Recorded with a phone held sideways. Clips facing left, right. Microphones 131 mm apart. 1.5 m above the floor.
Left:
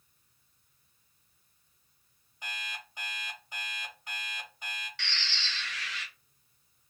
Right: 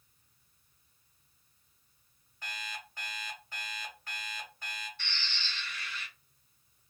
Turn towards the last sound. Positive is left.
turn(degrees=80)